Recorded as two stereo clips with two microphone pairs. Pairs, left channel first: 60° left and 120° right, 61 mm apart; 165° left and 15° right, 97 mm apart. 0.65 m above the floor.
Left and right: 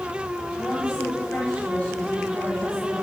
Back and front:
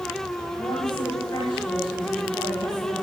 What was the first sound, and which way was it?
A woman speaking, 130° left.